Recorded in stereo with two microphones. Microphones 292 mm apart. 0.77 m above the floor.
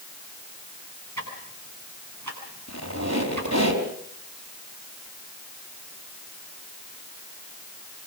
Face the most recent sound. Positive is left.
turn(degrees=-65)  # may be behind; listen again after turning